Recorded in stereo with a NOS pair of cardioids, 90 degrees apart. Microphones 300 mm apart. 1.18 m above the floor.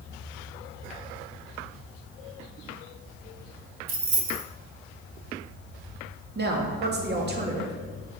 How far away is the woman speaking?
About 2 m.